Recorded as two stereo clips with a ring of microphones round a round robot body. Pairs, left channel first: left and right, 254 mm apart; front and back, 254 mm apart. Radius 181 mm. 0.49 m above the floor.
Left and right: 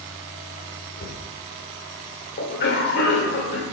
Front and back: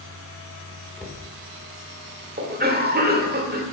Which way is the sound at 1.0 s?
85° left.